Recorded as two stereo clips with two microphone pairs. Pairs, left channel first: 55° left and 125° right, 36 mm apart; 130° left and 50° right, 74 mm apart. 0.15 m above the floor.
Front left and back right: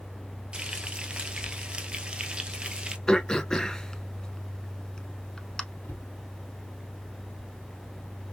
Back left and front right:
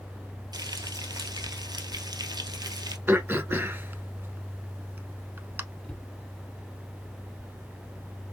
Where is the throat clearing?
10° right, 0.7 m.